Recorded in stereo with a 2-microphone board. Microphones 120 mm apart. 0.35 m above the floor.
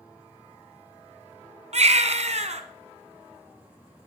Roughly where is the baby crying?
Right.